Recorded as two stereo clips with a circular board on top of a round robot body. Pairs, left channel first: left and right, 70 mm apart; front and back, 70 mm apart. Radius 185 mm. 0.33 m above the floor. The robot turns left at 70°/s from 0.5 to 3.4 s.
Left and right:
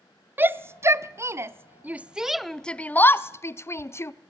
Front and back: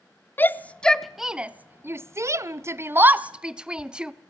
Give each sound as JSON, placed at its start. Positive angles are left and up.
{"t": 0.4, "sound": "a shout", "azimuth_deg": -50, "distance_m": 1.0}